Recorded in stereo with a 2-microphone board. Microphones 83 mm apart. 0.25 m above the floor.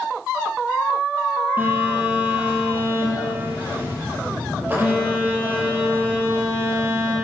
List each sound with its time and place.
1.6 s a phone buzzing: 25° right (ahead or behind), 5.5 m